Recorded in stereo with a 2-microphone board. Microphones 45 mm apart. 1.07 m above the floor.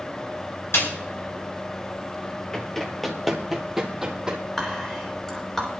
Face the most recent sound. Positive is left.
turn(degrees=10)  # may be behind; listen again after turning